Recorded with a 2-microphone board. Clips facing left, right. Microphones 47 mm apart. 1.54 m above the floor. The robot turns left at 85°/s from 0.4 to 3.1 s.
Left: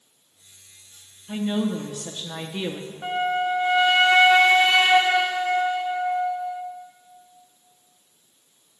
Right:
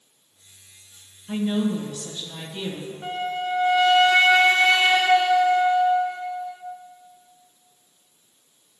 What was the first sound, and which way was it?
A woman speaking, 160° right.